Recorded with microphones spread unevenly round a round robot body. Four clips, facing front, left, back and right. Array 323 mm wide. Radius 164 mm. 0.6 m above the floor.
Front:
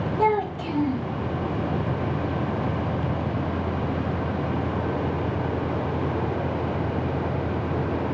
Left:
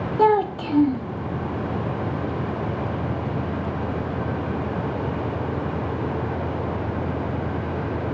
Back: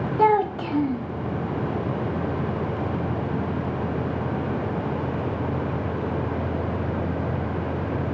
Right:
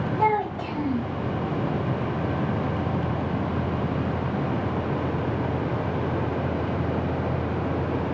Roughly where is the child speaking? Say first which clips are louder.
Left 6 dB, back 4 dB; behind left.